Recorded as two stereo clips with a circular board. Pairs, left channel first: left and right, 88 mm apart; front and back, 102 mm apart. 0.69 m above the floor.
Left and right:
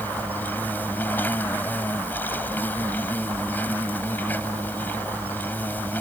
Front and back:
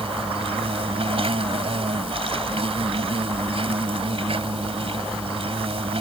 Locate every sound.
0.0 s an insect: 160° left